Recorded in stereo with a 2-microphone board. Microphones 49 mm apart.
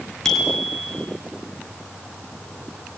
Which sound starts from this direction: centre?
A bicycle bell, at 0.2 s.